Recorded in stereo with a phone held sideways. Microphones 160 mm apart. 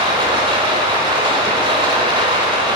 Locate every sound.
0.0 s running water: 35° right (ahead or behind), 1.1 m